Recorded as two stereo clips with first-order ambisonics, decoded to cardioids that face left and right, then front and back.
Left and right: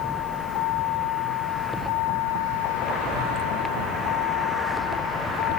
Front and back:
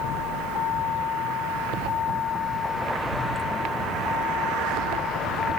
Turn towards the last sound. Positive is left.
turn(degrees=65)